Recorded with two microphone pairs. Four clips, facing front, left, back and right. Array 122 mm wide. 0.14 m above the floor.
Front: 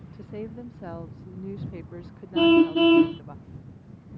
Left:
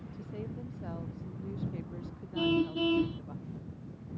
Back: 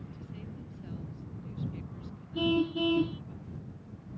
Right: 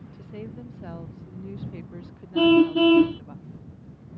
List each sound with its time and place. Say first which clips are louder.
0.1 s a woman speaking: right 3 dB, front 9 dB; 10° right
2.4 s a car horn: right 12 dB, front 11 dB; 45° right